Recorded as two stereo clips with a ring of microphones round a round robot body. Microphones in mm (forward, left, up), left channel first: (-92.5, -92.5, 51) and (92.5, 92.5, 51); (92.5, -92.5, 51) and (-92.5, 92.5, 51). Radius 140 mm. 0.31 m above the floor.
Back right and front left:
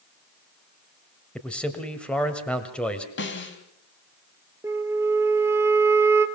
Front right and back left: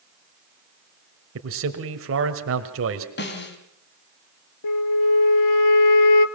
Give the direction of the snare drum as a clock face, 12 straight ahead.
3 o'clock.